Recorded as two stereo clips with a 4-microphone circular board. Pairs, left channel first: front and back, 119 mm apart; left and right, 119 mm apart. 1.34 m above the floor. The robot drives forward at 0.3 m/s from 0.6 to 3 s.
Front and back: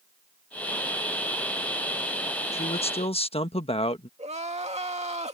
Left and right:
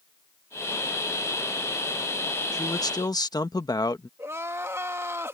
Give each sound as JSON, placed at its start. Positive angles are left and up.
{"t": 2.5, "sound": "a man speaking", "azimuth_deg": 30}
{"t": 4.2, "sound": "crying", "azimuth_deg": -160}